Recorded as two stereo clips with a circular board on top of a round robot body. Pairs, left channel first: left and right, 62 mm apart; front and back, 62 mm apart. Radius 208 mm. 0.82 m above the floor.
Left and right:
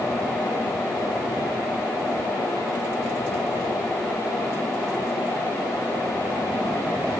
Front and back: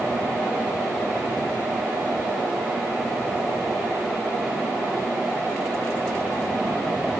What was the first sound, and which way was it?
Only background noise.